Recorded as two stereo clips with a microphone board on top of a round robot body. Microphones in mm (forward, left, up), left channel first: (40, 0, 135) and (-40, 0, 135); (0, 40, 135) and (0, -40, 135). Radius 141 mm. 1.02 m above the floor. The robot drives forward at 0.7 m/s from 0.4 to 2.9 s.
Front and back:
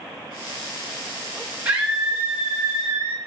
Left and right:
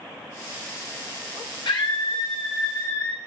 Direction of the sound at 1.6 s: 125° left.